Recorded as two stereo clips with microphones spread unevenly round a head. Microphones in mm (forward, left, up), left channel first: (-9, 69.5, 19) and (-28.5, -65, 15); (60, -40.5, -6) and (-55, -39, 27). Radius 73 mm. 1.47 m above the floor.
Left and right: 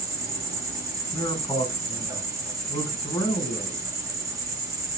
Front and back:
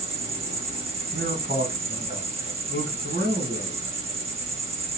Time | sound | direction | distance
0.0 | an insect | 150° right | 1.3 m
1.1 | a man speaking | 150° left | 1.3 m